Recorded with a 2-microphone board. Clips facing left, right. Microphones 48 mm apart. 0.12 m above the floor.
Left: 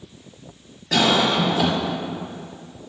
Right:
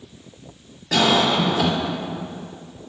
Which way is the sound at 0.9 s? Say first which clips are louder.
Right 1 dB; 5° left (ahead or behind).